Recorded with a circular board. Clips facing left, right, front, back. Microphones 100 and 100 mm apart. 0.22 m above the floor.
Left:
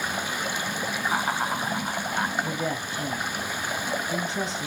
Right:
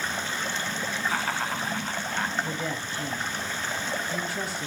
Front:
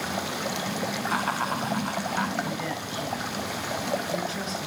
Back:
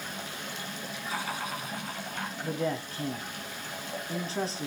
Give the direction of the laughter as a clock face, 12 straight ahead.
11 o'clock.